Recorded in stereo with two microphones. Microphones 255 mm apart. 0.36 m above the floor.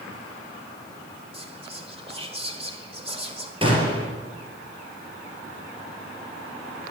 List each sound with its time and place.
1.3 s whispering: 25° right (ahead or behind), 1.7 m
3.6 s a gunshot: 20° right (ahead or behind), 3.5 m